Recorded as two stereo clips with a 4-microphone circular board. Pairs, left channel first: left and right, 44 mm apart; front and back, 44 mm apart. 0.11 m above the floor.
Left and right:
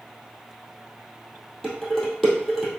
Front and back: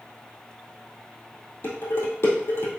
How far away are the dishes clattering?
About 2 m.